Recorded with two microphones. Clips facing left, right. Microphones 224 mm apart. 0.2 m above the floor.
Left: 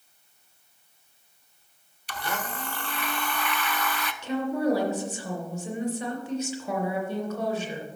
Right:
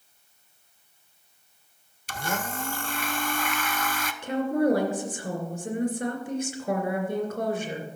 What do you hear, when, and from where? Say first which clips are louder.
2.1 s a blender: right 2 dB; 45° right (ahead or behind), 0.5 m
4.2 s a woman speaking: right 2 dB; 50° right (ahead or behind), 2.5 m